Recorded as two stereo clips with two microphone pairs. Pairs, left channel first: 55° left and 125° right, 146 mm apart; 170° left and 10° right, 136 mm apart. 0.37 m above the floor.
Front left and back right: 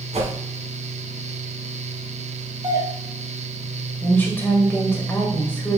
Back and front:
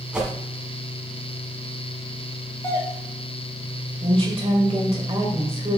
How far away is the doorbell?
About 1.3 m.